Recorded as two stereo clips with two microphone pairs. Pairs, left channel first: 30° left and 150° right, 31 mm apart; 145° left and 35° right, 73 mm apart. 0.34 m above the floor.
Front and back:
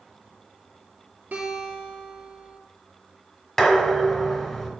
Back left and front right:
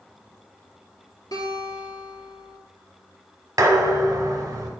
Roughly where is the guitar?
Behind.